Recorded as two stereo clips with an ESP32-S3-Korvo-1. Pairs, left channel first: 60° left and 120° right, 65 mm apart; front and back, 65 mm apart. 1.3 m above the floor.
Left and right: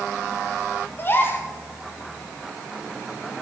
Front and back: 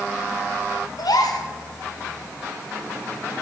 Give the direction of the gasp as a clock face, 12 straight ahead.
12 o'clock.